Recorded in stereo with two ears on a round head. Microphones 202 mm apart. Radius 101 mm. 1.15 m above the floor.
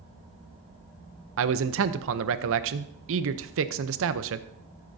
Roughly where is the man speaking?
Right.